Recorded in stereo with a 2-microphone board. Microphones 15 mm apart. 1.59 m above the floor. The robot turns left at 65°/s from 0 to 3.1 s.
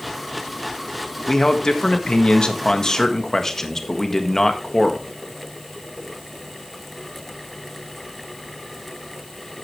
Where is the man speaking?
140° left, 1.5 m; by 5.1 s 25° left, 1.5 m.